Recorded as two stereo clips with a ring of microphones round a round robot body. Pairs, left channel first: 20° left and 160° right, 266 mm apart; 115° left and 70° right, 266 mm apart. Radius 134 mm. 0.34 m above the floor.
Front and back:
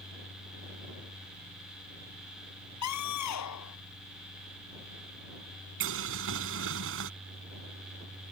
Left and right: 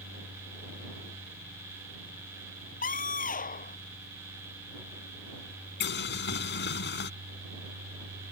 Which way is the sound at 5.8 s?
160° left.